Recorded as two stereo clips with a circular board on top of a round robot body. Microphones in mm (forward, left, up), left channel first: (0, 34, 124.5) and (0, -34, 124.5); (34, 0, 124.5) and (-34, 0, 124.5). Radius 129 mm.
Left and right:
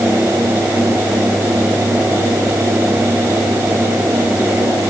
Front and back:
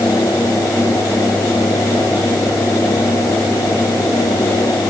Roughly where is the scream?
No scream in this recording.